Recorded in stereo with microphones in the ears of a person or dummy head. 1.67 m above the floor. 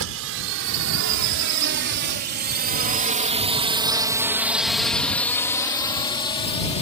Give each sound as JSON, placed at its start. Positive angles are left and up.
{"t": 0.0, "sound": "a drone", "side_deg": -75}